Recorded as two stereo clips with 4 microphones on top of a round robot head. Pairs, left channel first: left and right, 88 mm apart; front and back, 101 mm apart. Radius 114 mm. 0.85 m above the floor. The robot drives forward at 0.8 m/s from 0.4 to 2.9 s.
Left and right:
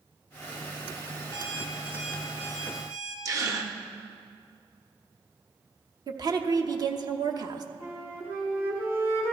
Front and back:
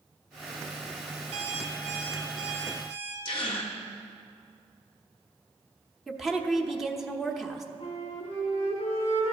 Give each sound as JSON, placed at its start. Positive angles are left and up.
{"t": 1.3, "sound": "an alarm clock", "azimuth_deg": -145, "distance_m": 0.6}
{"t": 3.2, "sound": "a gasp", "azimuth_deg": -40, "distance_m": 0.8}
{"t": 6.1, "sound": "a woman speaking", "azimuth_deg": -90, "distance_m": 1.0}
{"t": 7.8, "sound": "a flute", "azimuth_deg": -30, "distance_m": 3.5}